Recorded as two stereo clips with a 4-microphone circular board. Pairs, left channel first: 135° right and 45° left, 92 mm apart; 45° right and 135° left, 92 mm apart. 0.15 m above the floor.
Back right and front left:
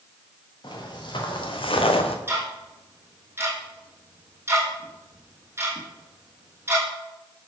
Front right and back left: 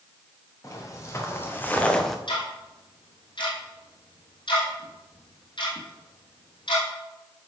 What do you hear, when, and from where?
0.6 s footsteps: 100° right, 3 m; by 2.2 s 135° right, 1.2 m
2.3 s ticking: 20° right, 3 m